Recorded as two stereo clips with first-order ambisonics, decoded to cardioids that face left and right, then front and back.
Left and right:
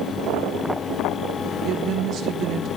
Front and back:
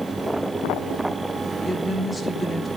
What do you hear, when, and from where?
1.6 s a woman speaking: 70° right, 1.2 m